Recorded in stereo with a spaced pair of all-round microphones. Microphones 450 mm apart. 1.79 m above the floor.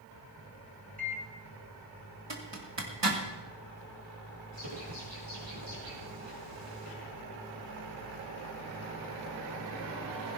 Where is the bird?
75° right (ahead or behind), 5.5 m.